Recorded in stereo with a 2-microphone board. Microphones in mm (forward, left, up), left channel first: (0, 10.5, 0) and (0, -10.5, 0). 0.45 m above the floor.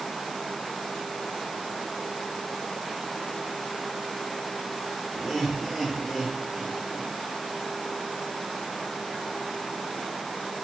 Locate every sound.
5.1 s laughter: 10° right (ahead or behind), 5.5 m; by 7.1 s 20° left (ahead or behind), 6 m